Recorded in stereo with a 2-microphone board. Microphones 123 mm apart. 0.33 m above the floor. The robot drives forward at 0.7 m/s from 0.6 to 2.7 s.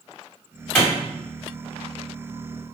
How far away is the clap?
About 2.0 m.